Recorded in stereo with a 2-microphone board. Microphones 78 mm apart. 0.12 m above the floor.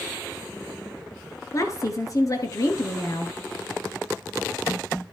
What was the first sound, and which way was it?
A woman speaking, 45° left (ahead or behind).